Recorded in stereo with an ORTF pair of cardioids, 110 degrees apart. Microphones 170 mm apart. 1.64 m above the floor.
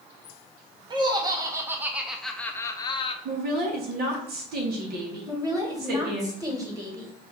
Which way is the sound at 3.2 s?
60° right.